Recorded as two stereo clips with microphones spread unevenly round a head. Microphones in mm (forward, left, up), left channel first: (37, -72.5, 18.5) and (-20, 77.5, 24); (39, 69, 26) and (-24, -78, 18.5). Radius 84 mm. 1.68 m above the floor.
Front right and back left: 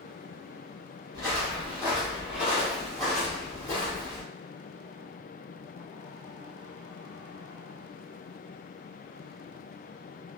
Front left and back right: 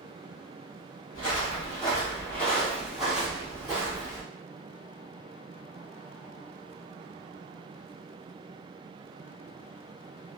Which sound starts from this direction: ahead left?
Footsteps, at 1.1 s.